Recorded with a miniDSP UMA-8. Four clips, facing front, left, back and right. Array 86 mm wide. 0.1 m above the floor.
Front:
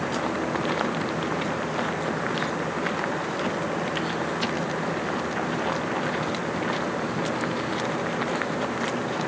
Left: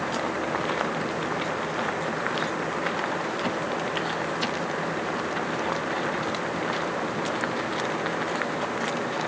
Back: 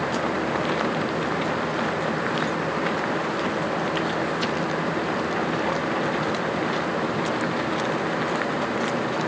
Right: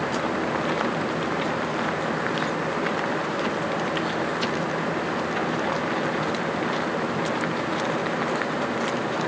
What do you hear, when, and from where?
Only background noise.